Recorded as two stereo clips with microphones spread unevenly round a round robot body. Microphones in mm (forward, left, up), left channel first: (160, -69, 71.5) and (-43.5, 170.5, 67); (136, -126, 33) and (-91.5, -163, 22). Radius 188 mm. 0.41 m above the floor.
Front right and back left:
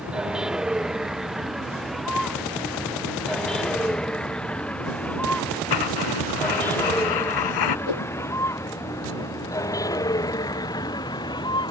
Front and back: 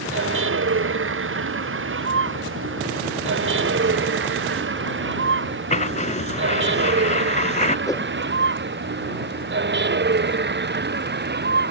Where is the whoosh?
65° right.